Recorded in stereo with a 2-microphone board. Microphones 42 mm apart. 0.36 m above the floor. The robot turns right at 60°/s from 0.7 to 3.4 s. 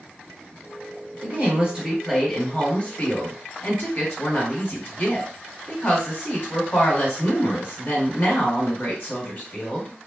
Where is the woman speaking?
60° right, 1.5 m; by 9.9 s 70° left, 1.5 m.